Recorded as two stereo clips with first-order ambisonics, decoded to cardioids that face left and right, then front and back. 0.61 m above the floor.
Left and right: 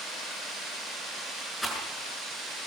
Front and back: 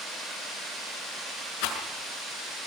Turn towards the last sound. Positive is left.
turn(degrees=5)